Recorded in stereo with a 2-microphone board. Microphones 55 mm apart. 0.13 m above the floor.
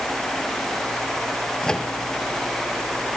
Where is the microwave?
15° left (ahead or behind), 2 m.